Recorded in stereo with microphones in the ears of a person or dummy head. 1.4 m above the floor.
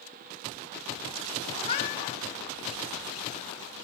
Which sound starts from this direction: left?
A cat meowing, at 1.6 s.